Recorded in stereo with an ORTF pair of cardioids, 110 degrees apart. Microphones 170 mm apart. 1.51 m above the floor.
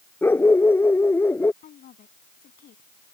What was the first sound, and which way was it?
A dog barking, 15° left.